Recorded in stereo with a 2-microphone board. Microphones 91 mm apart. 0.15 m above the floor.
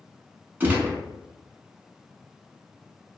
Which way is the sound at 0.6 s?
20° right (ahead or behind).